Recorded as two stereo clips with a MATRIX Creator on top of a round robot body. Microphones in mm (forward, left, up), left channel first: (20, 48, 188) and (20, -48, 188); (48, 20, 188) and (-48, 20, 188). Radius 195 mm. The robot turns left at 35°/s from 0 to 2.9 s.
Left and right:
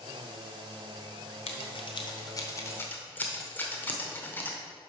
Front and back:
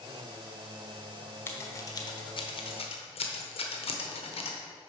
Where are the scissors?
70° left, 1.1 m; by 4.6 s 20° left, 1.1 m.